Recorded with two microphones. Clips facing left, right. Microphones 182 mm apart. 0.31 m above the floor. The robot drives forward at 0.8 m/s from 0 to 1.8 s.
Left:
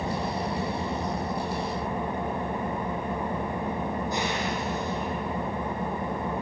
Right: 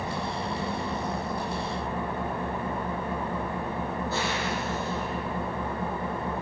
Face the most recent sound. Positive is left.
turn(degrees=15)  # may be behind; listen again after turning